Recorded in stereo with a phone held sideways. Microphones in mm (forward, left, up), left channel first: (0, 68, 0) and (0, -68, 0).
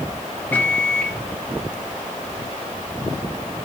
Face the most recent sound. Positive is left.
turn(degrees=10)  # may be behind; listen again after turning